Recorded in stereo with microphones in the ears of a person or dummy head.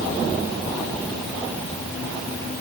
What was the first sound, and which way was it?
Only background noise.